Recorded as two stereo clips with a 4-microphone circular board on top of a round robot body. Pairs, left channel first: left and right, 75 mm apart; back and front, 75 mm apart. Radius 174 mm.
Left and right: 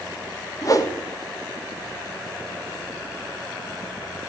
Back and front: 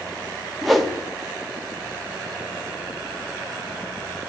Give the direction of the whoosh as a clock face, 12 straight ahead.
9 o'clock.